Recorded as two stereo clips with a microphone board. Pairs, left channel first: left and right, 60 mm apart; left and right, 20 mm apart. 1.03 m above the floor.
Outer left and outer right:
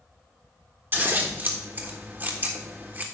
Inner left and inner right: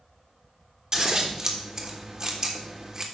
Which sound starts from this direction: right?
Scissors, at 0.9 s.